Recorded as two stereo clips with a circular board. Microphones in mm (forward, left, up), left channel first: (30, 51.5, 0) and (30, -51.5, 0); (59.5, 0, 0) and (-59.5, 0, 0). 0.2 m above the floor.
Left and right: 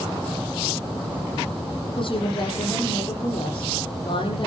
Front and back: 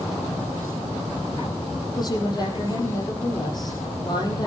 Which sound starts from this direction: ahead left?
A woman speaking, at 2.0 s.